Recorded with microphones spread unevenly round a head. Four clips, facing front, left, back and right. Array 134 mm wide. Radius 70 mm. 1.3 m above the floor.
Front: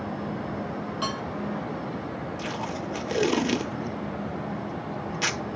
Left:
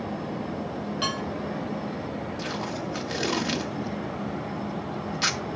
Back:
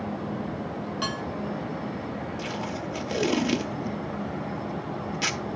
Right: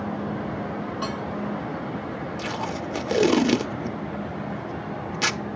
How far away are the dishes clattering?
About 6.5 m.